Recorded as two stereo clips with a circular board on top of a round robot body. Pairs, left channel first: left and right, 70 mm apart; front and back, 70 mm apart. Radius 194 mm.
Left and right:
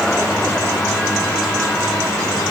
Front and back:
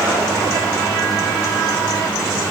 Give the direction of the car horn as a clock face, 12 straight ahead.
I don't hear a car horn.